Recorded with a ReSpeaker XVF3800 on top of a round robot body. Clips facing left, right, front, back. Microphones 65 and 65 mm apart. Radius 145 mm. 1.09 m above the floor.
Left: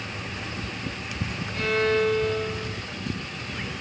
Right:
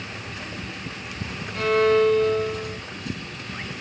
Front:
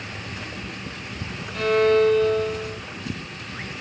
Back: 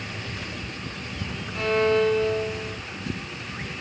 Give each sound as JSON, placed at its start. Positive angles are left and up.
{"t": 1.5, "sound": "a violin", "azimuth_deg": -35, "distance_m": 1.8}